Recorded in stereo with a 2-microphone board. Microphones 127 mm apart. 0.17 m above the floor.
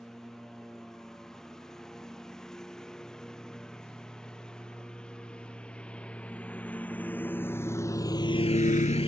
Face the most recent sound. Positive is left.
turn(degrees=45)  # may be behind; listen again after turning